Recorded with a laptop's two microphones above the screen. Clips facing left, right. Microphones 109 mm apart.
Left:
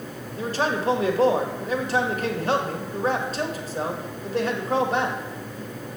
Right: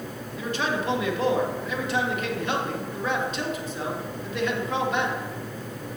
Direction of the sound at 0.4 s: 40° left (ahead or behind).